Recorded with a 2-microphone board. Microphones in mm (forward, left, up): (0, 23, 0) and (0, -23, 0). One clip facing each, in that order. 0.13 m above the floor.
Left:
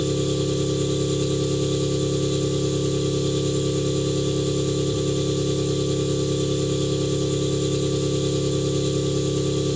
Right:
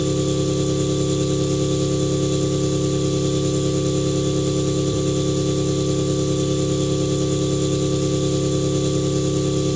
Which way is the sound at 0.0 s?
60° right (ahead or behind).